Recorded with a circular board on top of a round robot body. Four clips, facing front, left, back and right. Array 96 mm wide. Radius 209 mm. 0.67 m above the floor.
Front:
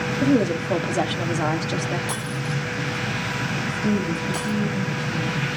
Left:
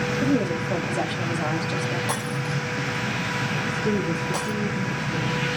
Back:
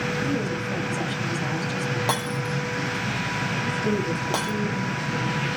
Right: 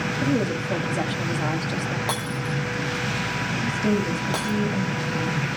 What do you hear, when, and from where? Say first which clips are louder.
0.2 s a woman speaking: even, front 7 dB; straight ahead, 1.7 m
2.1 s breaking glass: even, back 2 dB; 160° right, 3.5 m
3.5 s a woman speaking: right 2 dB, front 2 dB; 80° right, 5.5 m